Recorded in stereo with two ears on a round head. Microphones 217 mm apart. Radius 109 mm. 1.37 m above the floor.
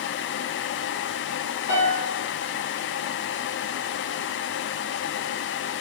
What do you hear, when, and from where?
1.7 s a piano: 55° left (ahead or behind), 2.0 m